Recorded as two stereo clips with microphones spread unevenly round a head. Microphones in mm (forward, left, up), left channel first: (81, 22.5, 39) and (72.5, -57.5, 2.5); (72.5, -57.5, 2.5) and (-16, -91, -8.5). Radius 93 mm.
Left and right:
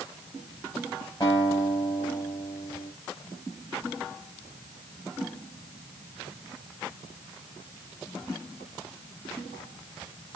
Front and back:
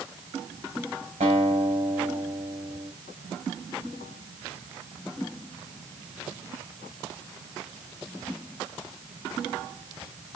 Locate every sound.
1.2 s a guitar: 155° left, 5.5 m